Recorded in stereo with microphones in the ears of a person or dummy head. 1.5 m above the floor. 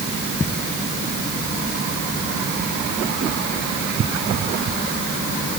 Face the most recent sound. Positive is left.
No sound to turn to.